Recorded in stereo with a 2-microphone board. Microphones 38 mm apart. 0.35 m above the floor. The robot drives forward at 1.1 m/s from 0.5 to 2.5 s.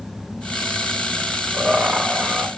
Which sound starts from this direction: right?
Laughter, at 1.5 s.